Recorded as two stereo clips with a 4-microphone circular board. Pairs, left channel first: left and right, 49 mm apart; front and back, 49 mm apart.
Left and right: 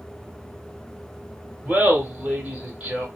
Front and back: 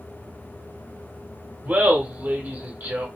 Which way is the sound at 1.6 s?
155° right.